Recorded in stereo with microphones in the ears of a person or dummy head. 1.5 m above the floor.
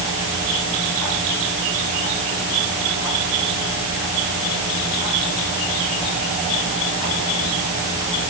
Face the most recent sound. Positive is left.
No sound to turn to.